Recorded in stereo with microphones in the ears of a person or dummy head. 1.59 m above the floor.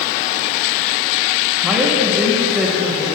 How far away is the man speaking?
About 1.1 m.